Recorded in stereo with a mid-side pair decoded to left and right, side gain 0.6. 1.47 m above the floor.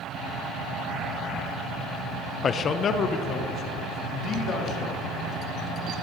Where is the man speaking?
40° left, 0.7 m; by 5.1 s 55° left, 4 m.